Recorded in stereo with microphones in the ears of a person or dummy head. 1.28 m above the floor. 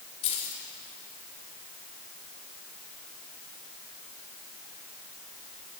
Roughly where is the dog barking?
I don't hear a dog barking.